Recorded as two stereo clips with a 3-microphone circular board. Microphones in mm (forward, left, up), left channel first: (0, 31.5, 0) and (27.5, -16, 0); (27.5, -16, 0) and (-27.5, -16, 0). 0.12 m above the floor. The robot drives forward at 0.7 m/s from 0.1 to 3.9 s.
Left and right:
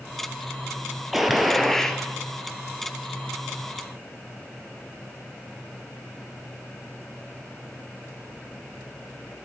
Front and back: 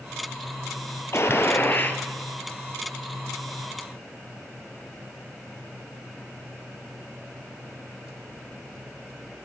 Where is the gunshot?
25° left, 1.5 m; by 2.0 s 45° left, 1.1 m.